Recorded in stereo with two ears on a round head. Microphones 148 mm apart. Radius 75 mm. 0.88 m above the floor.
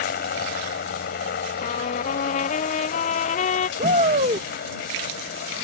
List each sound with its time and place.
0.0 s a helicopter: 60° left (ahead or behind)
1.6 s a trumpet: 50° left (ahead or behind)
3.8 s a shout: 45° right (ahead or behind)